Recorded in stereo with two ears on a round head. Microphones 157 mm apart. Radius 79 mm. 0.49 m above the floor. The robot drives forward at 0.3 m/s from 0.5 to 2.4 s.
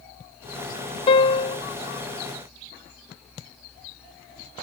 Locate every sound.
1.1 s a piano: 30° left (ahead or behind)